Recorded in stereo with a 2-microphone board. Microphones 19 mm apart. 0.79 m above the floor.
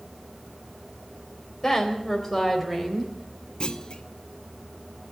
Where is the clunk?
50° left (ahead or behind), 1.2 m.